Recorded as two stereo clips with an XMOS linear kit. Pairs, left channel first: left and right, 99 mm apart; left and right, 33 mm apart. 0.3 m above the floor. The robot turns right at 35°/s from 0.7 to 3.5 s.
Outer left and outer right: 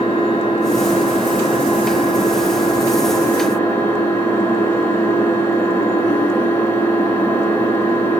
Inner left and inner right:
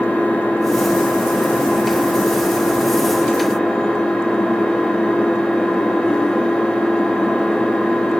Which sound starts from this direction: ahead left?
An engine running, at 0.0 s.